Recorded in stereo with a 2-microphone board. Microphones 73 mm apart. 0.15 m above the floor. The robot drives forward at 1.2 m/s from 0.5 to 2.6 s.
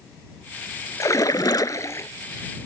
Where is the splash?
45° left (ahead or behind); by 2.1 s 40° left (ahead or behind).